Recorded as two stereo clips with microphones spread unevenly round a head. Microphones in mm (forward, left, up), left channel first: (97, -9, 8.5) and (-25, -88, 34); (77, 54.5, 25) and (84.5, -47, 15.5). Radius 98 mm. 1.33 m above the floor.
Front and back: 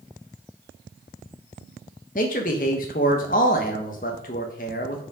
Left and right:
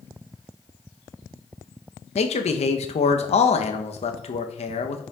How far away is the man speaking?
About 1.1 m.